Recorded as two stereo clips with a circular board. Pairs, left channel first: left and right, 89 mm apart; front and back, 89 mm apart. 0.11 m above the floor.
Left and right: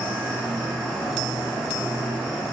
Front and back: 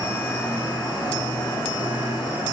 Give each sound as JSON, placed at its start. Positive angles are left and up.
{"t": 0.0, "sound": "an insect", "azimuth_deg": 10, "distance_m": 3.0}